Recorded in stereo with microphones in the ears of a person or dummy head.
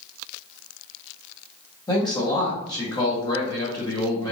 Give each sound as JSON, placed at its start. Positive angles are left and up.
{"t": 1.9, "sound": "a man speaking", "side_deg": 20, "distance_m": 1.0}